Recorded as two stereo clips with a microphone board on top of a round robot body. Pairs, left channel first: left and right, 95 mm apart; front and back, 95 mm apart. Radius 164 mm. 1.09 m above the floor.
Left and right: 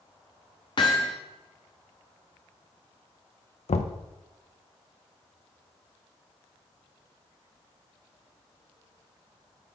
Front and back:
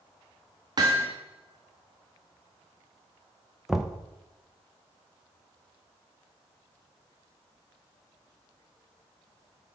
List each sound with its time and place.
0.8 s hammering: 135° left, 0.7 m
3.7 s knocking: 95° left, 0.5 m